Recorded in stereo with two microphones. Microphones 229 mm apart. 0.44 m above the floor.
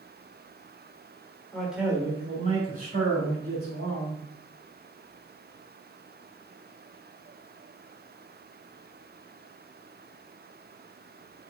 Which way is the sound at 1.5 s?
5° left (ahead or behind).